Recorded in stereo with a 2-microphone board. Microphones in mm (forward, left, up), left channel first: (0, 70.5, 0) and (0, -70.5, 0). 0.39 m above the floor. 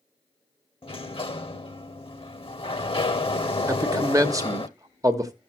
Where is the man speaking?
25° right (ahead or behind), 0.9 m.